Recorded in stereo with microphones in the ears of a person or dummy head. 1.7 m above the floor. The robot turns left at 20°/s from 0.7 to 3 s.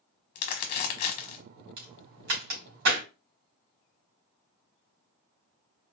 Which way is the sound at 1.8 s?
65° right (ahead or behind).